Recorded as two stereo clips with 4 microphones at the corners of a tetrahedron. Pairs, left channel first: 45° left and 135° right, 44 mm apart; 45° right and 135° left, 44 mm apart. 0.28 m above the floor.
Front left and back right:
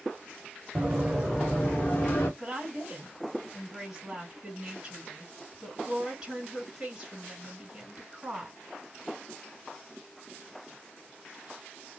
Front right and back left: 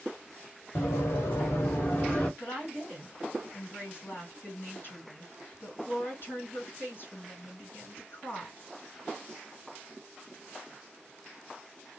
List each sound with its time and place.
0.8 s running footsteps: 55° right, 1.6 m; by 2.3 s 15° left, 1.3 m
2.4 s a woman speaking: 60° right, 2 m